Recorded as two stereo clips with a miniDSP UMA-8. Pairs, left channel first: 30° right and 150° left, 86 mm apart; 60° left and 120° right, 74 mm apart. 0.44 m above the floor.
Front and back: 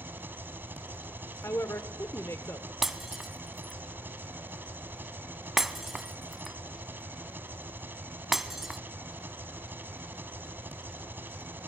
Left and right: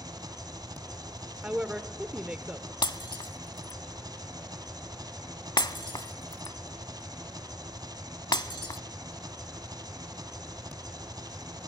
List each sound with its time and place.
0.0 s an engine running: 145° right, 1.5 m
1.4 s a woman speaking: 55° right, 0.9 m
2.8 s breaking glass: 65° left, 0.6 m